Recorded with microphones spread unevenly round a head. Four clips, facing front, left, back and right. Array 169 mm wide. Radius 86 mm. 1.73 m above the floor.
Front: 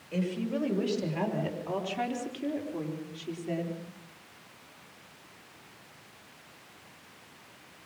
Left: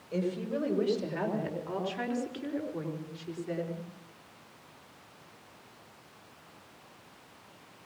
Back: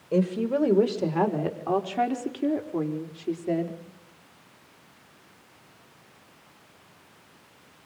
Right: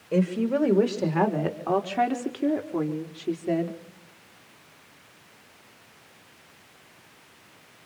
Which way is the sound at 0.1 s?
140° right.